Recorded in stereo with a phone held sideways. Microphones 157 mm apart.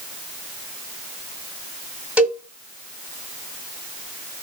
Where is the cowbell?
5° right (ahead or behind), 2 m.